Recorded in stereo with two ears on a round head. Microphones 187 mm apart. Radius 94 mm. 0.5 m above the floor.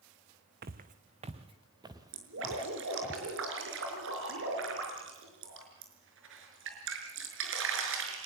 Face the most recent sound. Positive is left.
turn(degrees=-70)  # may be behind; listen again after turning